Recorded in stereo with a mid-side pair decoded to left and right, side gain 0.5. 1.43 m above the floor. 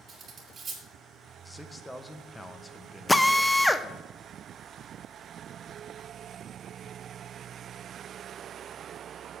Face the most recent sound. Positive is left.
turn(degrees=5)